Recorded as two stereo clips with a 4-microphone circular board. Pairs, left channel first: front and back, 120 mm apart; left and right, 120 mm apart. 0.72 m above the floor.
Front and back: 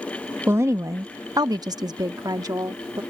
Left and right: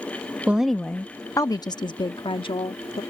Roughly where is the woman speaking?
Behind right.